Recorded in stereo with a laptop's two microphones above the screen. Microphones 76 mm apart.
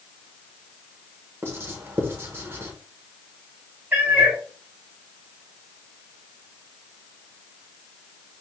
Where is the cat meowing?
20° right (ahead or behind), 1.6 m.